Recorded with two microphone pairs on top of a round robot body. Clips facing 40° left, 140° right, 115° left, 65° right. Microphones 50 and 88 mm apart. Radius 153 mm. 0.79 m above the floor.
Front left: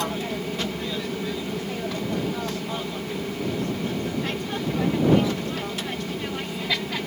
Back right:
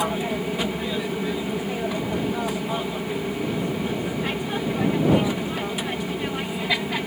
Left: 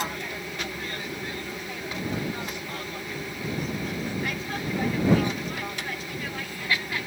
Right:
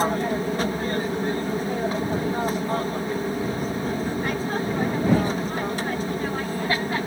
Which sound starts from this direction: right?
An aircraft, at 0.0 s.